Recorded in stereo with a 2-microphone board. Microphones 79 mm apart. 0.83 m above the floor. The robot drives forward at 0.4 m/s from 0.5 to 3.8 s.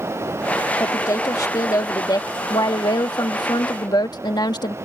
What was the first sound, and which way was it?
A woman speaking, 40° left (ahead or behind).